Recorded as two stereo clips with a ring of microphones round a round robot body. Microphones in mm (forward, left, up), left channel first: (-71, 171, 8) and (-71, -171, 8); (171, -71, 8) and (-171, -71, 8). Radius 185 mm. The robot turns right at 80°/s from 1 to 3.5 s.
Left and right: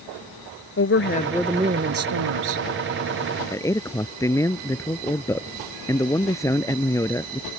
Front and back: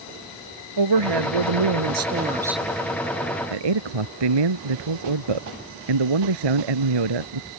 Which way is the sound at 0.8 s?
145° left.